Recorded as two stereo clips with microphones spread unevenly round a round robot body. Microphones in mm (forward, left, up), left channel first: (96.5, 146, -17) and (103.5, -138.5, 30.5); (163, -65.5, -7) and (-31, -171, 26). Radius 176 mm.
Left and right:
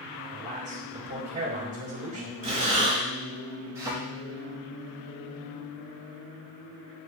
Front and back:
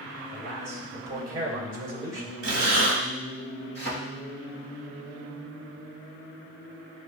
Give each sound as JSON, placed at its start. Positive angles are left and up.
{"t": 0.3, "sound": "a man speaking", "azimuth_deg": -140, "distance_m": 2.5}
{"t": 2.4, "sound": "breathing", "azimuth_deg": -140, "distance_m": 1.5}
{"t": 3.8, "sound": "a thud", "azimuth_deg": -170, "distance_m": 3.0}